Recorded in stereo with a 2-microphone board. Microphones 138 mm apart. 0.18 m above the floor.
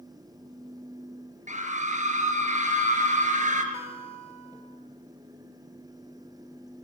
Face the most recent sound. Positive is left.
turn(degrees=-20)  # may be behind; listen again after turning